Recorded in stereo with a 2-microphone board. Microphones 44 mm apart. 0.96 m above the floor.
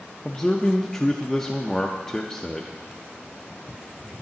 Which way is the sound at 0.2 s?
15° left (ahead or behind).